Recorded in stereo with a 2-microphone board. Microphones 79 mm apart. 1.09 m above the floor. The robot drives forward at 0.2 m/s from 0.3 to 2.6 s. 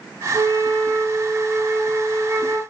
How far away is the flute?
About 2.5 m.